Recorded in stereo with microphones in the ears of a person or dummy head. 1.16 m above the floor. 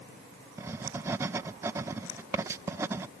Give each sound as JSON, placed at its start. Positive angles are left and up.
{"t": 0.6, "sound": "writing", "side_deg": -15}